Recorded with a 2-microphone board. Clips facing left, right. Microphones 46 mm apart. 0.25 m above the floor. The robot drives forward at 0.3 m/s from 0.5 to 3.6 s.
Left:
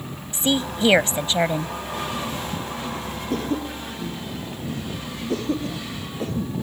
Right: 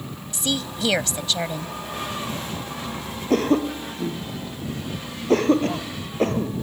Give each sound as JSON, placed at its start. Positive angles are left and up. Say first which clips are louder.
{"t": 0.3, "sound": "a woman speaking", "louder": "left 4 dB", "side_deg": 30}
{"t": 3.3, "sound": "a cough", "louder": "right 7 dB", "side_deg": -60}